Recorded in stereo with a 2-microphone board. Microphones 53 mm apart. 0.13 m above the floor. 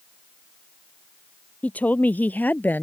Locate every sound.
1.6 s a woman speaking: 30° left (ahead or behind); by 2.8 s 35° left (ahead or behind)